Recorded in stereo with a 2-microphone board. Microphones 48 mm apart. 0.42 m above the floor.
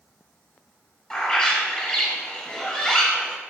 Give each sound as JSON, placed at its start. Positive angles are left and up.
{"t": 1.1, "sound": "a bird", "side_deg": 20, "distance_m": 0.7}